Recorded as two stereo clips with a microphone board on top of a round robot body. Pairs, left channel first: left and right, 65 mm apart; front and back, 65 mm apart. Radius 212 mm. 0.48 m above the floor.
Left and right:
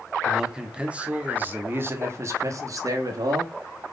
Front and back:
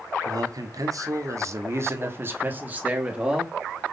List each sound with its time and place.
0.2 s a man speaking: 175° right, 1.8 m; by 3.5 s 105° right, 1.9 m